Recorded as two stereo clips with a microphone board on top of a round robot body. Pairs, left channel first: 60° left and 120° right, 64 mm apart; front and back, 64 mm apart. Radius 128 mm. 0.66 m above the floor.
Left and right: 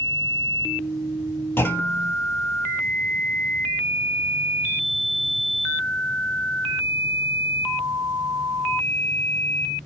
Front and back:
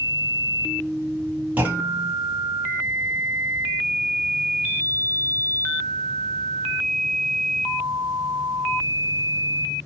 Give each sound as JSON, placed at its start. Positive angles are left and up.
{"t": 1.6, "sound": "a clunk", "azimuth_deg": 115, "distance_m": 1.2}